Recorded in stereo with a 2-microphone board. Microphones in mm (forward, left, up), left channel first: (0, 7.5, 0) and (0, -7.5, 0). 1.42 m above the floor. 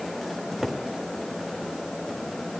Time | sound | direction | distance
0.4 | a cupboard door | 45° right (ahead or behind) | 3 m